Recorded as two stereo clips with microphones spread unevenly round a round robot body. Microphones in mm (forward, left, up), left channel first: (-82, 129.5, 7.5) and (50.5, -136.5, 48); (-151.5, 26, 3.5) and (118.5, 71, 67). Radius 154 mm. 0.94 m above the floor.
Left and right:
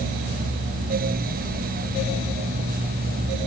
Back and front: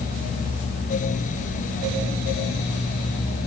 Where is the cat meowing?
No cat meowing in this recording.